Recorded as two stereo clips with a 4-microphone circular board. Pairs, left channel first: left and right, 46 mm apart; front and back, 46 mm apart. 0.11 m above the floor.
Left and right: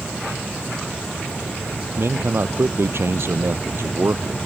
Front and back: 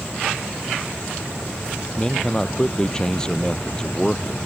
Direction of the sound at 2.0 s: 75° right.